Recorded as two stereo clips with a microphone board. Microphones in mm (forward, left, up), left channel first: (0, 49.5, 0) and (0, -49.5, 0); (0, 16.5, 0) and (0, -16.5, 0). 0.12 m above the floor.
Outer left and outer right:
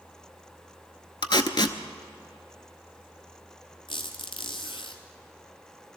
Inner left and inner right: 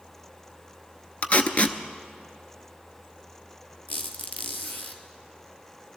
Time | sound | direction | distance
1.2 | tape being pulled | 50° left (ahead or behind) | 0.8 m
3.9 | a squeak | 55° left (ahead or behind) | 1.4 m